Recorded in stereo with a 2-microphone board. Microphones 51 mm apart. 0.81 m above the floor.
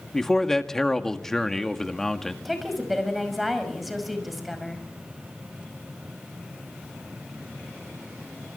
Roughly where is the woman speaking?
Centre.